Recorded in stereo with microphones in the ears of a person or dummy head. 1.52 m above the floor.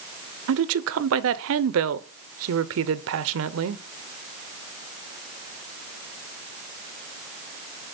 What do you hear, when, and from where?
0.5 s a woman speaking: 75° right (ahead or behind), 0.7 m